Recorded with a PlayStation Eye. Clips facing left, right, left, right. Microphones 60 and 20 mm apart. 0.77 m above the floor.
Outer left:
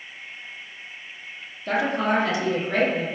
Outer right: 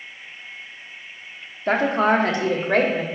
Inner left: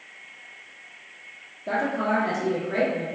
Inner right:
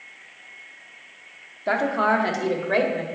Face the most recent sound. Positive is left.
turn(degrees=-65)  # may be behind; listen again after turning